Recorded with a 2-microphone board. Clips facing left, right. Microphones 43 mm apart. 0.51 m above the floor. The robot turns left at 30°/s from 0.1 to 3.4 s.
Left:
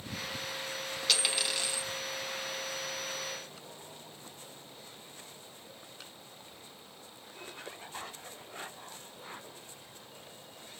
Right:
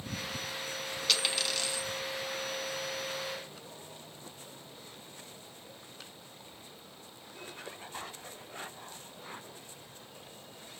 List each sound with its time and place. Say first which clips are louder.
1.1 s a dropped coin: even; 5° left (ahead or behind), 0.7 m; by 1.8 s 25° left (ahead or behind), 0.7 m